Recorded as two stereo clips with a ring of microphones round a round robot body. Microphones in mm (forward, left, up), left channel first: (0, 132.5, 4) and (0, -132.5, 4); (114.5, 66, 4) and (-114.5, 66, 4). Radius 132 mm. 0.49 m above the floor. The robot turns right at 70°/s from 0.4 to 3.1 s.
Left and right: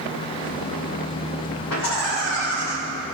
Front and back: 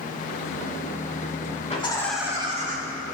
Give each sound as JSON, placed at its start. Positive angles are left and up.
{"t": 1.7, "sound": "laughter", "azimuth_deg": 60, "distance_m": 5.0}